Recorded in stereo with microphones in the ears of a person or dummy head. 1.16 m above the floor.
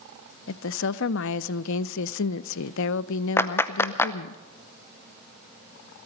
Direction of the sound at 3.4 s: 15° left (ahead or behind).